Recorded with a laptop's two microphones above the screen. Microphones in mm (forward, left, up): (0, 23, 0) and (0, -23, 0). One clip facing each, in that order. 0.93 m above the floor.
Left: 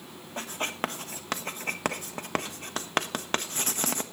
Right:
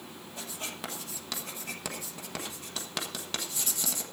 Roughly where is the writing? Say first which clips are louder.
Left 9 dB; left.